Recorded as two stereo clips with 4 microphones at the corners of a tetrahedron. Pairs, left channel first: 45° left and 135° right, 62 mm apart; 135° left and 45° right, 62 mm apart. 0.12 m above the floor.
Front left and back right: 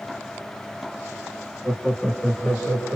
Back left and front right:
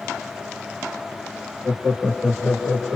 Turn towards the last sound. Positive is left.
turn(degrees=35)